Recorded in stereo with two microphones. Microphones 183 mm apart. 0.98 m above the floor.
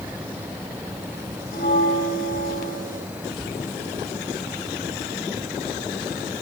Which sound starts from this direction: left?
A bell, at 1.5 s.